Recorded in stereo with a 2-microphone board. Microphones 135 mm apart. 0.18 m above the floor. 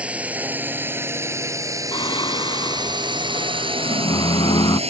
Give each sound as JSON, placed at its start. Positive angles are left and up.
{"t": 0.0, "sound": "a drone", "side_deg": -10}
{"t": 1.9, "sound": "singing", "side_deg": 35}